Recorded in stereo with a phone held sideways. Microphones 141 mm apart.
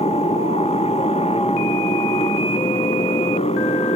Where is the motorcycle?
50° left (ahead or behind).